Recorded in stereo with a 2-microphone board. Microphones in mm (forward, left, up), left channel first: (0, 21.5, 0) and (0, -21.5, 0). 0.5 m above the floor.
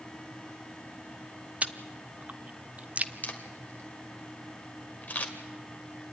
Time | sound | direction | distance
1.6 | chewing | 35° right (ahead or behind) | 0.7 m
3.2 | a camera shutter | 40° left (ahead or behind) | 2.0 m